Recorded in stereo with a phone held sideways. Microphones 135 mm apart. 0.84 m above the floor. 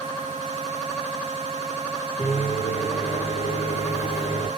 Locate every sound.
2.2 s a microwave: 65° left (ahead or behind), 1.7 m